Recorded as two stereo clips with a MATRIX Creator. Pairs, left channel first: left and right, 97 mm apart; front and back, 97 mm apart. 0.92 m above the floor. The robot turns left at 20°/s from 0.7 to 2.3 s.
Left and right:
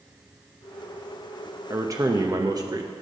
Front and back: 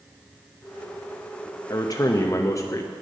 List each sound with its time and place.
1.7 s a man speaking: 40° right, 0.7 m; by 2.9 s 50° right, 0.7 m